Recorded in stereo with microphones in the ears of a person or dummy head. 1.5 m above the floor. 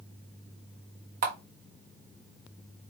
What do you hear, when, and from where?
1.2 s a camera shutter: 50° right (ahead or behind), 1.1 m